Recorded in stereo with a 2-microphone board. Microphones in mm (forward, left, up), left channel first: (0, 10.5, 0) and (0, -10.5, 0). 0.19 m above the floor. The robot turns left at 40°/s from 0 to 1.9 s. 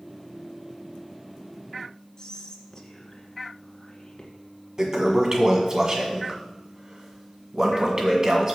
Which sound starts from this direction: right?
A toilet flushing, at 4.8 s.